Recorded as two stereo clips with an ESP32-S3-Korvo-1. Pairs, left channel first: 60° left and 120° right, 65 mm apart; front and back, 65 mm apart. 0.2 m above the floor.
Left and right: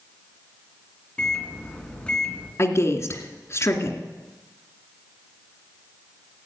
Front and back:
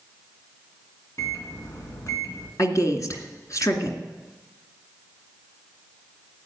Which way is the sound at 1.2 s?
10° right.